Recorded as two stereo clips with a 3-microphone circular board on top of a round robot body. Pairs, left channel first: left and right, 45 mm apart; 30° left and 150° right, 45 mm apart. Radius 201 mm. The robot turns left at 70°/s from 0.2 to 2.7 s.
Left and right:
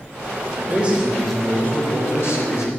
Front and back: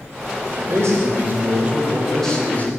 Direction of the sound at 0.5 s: 135° right.